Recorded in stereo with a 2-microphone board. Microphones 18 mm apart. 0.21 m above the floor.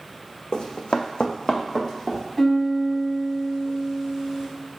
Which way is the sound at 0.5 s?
45° left (ahead or behind).